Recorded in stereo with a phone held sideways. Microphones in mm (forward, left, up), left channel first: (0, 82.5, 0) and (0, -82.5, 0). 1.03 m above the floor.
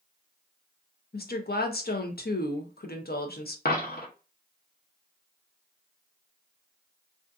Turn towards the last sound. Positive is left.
turn(degrees=70)  # may be behind; listen again after turning